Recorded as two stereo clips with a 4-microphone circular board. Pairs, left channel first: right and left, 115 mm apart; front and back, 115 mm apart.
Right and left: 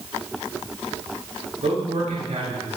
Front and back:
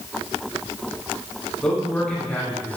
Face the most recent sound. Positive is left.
turn(degrees=75)